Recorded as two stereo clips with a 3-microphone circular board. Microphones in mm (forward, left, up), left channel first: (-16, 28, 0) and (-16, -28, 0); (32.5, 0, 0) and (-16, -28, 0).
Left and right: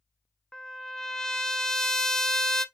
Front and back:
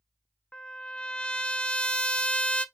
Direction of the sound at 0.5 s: 30° left.